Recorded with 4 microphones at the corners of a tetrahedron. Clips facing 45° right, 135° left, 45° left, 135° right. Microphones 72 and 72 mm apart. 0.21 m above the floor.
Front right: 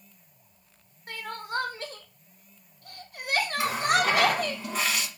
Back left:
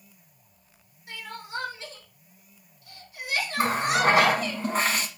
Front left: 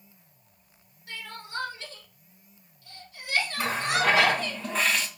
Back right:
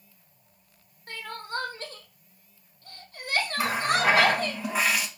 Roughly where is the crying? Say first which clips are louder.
Front right 3 dB, back right 4 dB; right.